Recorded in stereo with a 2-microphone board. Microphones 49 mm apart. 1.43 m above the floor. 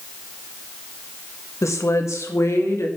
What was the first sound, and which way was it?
A woman speaking, 80° left.